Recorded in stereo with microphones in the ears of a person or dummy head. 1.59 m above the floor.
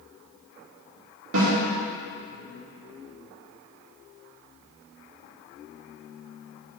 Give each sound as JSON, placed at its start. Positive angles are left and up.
{"t": 1.3, "sound": "a snare drum", "side_deg": -80, "distance_m": 3.0}